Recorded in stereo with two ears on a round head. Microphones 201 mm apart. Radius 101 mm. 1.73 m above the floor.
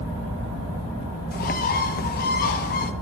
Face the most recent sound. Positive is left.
turn(degrees=40)  # may be behind; listen again after turning